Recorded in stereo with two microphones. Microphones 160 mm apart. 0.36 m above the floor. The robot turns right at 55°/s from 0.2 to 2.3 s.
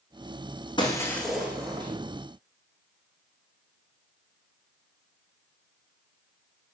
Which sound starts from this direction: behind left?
Breaking glass, at 0.8 s.